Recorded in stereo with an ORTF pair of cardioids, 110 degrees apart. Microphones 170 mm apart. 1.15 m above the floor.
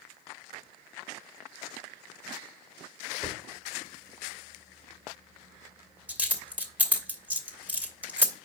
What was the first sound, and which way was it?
A dropped coin, 10° right.